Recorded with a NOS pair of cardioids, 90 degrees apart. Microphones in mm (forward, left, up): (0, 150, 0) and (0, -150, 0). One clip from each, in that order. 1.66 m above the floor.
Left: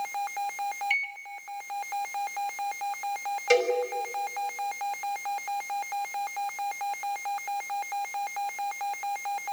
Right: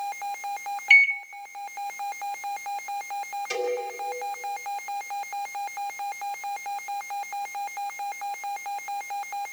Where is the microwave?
45° right, 0.5 m.